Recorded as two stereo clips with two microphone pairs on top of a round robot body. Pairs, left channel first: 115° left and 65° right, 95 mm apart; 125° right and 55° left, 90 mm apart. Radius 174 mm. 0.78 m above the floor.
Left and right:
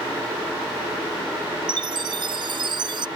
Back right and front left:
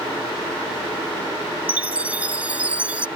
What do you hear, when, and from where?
1.7 s a chime: 20° right